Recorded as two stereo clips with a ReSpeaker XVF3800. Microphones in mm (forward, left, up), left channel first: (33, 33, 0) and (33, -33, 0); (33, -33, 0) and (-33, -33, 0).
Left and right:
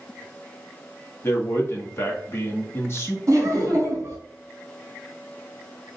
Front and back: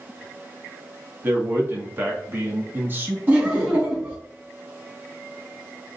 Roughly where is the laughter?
Behind right.